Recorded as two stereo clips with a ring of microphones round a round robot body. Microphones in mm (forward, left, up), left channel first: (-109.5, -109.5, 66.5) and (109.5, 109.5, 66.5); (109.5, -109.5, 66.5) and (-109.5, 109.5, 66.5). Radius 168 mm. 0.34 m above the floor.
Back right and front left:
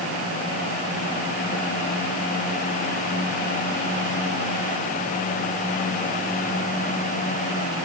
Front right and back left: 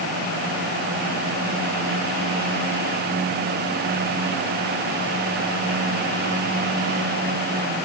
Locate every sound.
Only background noise.